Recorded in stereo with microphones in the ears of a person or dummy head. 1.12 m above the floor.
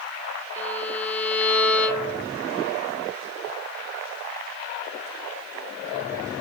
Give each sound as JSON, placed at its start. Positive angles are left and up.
{"t": 0.6, "sound": "a violin", "side_deg": 5, "distance_m": 0.8}